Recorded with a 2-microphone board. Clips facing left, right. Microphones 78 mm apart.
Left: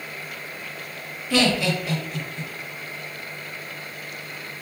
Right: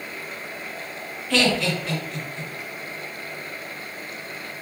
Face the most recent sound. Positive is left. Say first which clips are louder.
# left 1 dB
turn(degrees=10)  # may be behind; listen again after turning